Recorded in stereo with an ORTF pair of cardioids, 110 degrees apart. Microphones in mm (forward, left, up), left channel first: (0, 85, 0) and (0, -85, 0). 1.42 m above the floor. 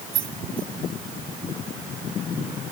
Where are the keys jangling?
60° right, 3.5 m.